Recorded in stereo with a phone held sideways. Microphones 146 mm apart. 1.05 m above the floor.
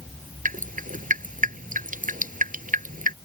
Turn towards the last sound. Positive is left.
turn(degrees=-65)  # may be behind; listen again after turning